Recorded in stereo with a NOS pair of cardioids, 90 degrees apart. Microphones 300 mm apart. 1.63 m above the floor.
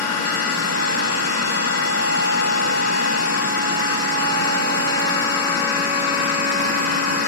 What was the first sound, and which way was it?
A machine running, 55° left.